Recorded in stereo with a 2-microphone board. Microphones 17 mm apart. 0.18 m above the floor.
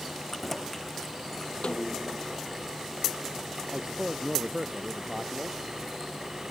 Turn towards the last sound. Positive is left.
turn(degrees=-30)  # may be behind; listen again after turning